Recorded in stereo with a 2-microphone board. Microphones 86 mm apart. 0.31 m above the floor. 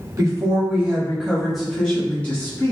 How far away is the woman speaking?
About 1.4 m.